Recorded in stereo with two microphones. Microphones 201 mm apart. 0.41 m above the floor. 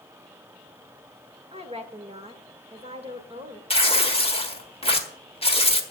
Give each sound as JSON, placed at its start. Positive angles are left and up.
{"t": 1.5, "sound": "a woman speaking", "side_deg": -30, "distance_m": 1.5}
{"t": 3.7, "sound": "tearing paper", "side_deg": 30, "distance_m": 1.5}